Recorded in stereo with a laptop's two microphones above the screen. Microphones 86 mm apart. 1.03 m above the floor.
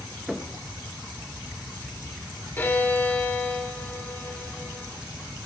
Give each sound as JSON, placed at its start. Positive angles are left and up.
{"t": 0.3, "sound": "knocking", "side_deg": 0, "distance_m": 1.0}
{"t": 2.6, "sound": "a violin", "side_deg": 25, "distance_m": 1.9}